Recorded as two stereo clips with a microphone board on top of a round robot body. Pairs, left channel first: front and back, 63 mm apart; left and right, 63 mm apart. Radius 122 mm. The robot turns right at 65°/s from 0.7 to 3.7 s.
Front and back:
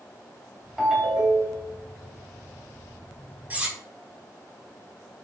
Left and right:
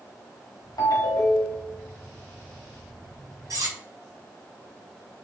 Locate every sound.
0.8 s a ringtone: 90° left, 1.3 m; by 1.7 s 150° left, 1.3 m
3.5 s cutlery clinking: 115° right, 1.0 m; by 3.8 s 105° right, 1.0 m